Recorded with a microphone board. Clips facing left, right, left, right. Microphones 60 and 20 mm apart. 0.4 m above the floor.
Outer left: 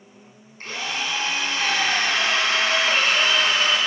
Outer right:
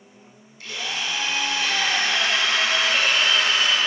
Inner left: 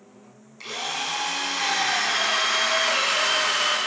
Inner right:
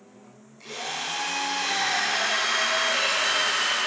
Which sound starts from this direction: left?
A drill, at 0.6 s.